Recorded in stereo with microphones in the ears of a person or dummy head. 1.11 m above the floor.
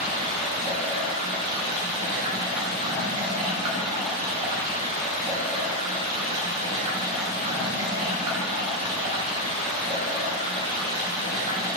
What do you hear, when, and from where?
0.0 s running water: 35° right (ahead or behind), 3.5 m